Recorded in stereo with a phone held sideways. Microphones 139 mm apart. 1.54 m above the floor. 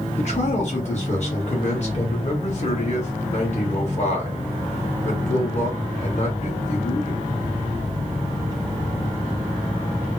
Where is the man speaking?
50° left (ahead or behind), 1.5 m.